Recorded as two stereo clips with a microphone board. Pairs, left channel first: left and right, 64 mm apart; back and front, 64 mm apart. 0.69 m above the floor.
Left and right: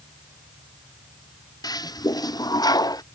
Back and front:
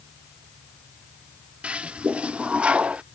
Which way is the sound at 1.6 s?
75° left.